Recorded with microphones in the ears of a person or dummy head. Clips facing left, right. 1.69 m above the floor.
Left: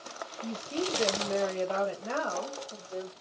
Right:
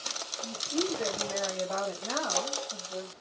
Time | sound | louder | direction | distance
0.4 | a woman speaking | right 1 dB | 55° left (ahead or behind) | 0.8 m